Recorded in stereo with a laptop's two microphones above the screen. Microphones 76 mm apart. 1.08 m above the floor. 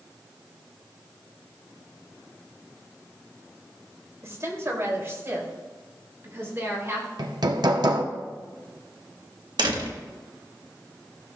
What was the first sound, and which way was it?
A woman speaking, 40° right (ahead or behind).